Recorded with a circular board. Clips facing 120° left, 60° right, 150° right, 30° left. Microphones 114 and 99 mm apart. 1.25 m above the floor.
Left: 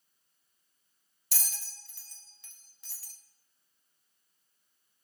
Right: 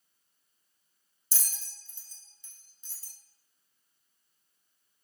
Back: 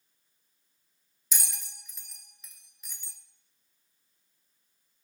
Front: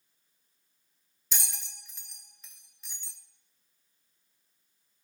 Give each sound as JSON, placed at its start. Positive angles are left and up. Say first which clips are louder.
{"t": 1.3, "sound": "a bell", "louder": "left 2 dB, even", "azimuth_deg": 125, "distance_m": 1.0}